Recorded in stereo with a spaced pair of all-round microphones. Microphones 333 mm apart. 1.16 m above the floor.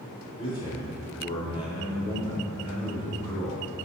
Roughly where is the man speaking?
Centre.